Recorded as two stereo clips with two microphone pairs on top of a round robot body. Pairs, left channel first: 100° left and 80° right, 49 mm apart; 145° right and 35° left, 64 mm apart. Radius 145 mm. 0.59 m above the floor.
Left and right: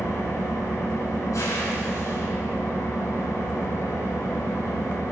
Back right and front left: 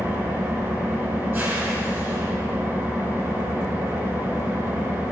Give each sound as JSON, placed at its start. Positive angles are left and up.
{"t": 0.0, "sound": "an engine running", "azimuth_deg": 85, "distance_m": 4.5}